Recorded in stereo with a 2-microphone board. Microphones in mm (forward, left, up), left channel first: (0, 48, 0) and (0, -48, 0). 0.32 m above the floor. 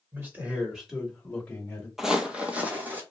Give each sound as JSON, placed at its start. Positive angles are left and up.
{"t": 0.1, "sound": "a man speaking", "side_deg": -25, "distance_m": 1.3}
{"t": 2.0, "sound": "footsteps", "side_deg": -5, "distance_m": 0.5}